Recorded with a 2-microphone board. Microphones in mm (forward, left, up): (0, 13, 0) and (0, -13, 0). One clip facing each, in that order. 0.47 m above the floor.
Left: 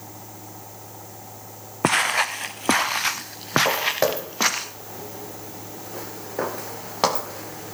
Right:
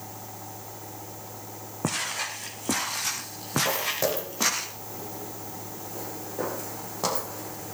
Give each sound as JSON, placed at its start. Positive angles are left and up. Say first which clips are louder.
{"t": 1.8, "sound": "footsteps", "louder": "left 10 dB", "side_deg": 70, "distance_m": 1.3}
{"t": 3.6, "sound": "footsteps", "louder": "left 5 dB", "side_deg": 40, "distance_m": 2.5}